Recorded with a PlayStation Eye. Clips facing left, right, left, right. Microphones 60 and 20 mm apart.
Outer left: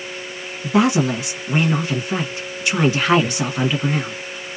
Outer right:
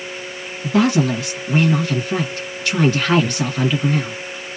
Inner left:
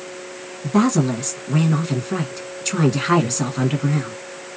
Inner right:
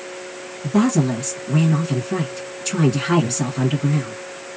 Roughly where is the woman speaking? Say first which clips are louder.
Even, even; centre.